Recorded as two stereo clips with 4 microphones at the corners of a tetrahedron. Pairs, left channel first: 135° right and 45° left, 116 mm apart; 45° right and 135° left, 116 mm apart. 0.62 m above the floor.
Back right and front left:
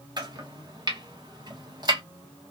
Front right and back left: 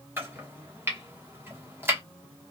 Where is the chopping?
75° left, 1.0 m.